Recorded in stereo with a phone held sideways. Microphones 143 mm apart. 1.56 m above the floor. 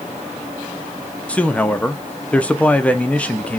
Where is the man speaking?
10° left (ahead or behind), 0.7 m.